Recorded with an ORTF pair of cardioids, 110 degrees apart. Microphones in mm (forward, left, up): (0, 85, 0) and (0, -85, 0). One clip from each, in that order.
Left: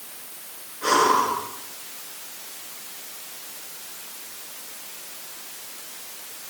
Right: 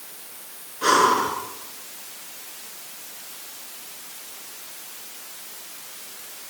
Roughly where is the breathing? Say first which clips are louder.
Right 1 dB; ahead right.